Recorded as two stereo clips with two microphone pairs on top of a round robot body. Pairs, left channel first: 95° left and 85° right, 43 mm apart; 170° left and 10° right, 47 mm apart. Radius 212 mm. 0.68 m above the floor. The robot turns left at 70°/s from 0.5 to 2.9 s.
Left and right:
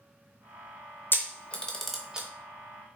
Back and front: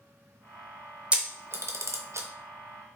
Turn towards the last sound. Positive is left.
turn(degrees=-70)